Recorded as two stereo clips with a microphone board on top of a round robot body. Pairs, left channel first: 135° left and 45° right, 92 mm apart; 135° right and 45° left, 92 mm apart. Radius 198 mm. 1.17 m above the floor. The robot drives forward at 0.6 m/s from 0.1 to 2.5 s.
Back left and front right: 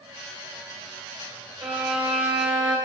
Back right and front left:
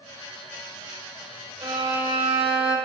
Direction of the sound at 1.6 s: 30° left.